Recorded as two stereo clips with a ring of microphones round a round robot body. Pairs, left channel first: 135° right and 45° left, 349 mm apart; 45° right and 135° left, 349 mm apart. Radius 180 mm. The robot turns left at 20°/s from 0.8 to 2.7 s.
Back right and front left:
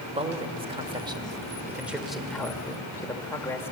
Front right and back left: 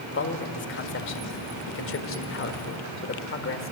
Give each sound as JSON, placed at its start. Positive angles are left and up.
{"t": 0.1, "sound": "a man speaking", "azimuth_deg": -20, "distance_m": 1.7}